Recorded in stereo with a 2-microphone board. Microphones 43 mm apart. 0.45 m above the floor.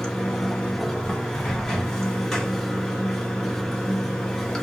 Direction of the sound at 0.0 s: 10° left (ahead or behind).